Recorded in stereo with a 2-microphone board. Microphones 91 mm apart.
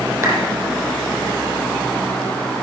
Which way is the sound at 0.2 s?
25° right (ahead or behind).